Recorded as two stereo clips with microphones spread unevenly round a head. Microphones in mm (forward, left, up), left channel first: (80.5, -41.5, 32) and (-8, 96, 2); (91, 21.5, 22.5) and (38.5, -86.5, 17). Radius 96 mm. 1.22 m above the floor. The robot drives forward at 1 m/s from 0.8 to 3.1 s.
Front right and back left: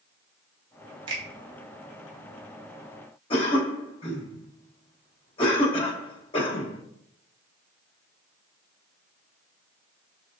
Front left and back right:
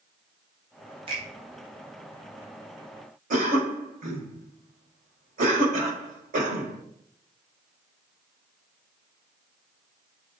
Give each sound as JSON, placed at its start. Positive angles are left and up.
{"t": 1.1, "sound": "a finger snap", "azimuth_deg": -175, "distance_m": 0.8}
{"t": 3.3, "sound": "a cough", "azimuth_deg": -125, "distance_m": 1.0}